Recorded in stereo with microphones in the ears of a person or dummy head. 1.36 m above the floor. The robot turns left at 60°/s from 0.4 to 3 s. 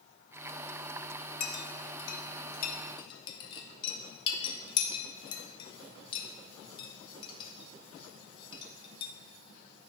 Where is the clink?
50° left (ahead or behind), 0.9 m; by 9.1 s 30° left (ahead or behind), 0.9 m.